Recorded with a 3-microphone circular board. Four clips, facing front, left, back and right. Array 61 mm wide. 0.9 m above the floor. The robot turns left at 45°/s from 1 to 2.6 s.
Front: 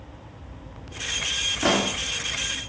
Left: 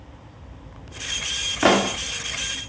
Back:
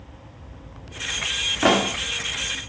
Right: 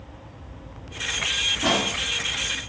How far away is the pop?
About 1.5 m.